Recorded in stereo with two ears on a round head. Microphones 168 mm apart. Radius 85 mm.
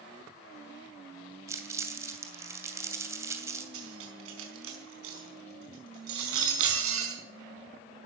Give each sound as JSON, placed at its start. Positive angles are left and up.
{"t": 1.5, "sound": "crumpling", "side_deg": -15, "distance_m": 2.5}
{"t": 3.7, "sound": "cutlery clinking", "side_deg": -85, "distance_m": 4.5}